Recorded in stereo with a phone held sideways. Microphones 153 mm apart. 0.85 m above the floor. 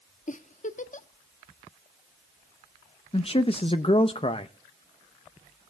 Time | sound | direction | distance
0.3 | a giggle | 50° left (ahead or behind) | 0.6 m
3.1 | a man speaking | 35° left (ahead or behind) | 0.6 m